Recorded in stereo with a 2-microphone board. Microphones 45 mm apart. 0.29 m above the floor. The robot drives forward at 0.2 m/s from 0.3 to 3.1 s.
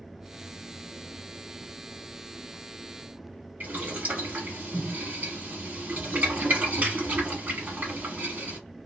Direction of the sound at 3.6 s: 45° right (ahead or behind).